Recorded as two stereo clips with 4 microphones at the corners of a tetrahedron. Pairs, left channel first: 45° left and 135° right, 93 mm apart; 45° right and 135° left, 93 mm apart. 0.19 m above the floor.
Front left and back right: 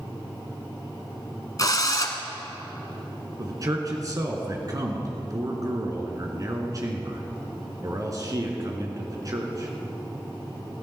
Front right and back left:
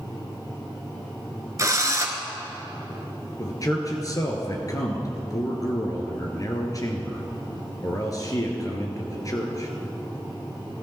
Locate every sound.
1.6 s a drill: 85° left, 1.4 m
3.4 s a man speaking: 90° right, 2 m